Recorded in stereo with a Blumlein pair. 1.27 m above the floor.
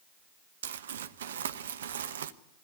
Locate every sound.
0.6 s crumpling: 65° right, 1.0 m